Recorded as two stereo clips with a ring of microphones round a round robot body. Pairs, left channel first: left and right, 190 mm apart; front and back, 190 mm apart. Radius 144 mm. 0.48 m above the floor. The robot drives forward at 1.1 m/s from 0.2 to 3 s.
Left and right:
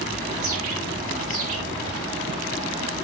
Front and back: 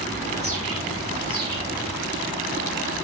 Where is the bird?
110° right, 5 m; by 2.0 s 125° right, 6 m.